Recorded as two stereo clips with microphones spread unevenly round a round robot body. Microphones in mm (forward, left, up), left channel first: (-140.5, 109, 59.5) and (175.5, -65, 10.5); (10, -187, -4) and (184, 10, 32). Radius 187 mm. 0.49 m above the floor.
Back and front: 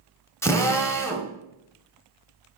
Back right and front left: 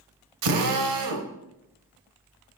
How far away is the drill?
About 1.0 m.